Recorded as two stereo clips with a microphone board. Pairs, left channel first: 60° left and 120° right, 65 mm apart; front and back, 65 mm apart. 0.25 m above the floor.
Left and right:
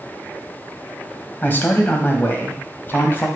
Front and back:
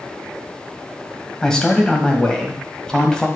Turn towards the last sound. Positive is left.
turn(degrees=70)